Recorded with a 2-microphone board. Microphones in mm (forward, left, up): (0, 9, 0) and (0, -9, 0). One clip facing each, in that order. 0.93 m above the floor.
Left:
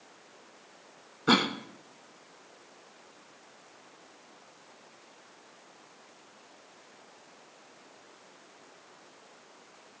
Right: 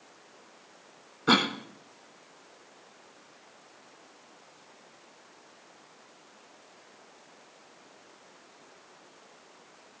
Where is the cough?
10° right (ahead or behind), 0.8 m.